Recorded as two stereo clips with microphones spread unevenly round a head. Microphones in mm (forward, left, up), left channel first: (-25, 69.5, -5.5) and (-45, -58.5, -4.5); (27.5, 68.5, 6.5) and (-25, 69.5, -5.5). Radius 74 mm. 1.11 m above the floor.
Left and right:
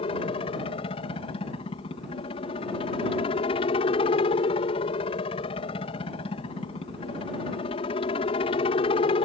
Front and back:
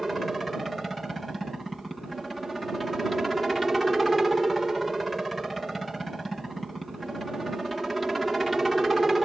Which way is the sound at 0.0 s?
95° left.